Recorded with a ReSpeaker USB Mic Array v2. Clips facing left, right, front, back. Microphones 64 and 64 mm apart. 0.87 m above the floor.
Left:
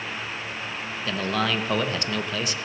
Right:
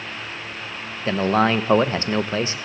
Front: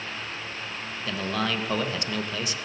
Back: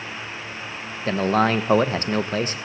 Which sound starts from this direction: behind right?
A man speaking, at 1.1 s.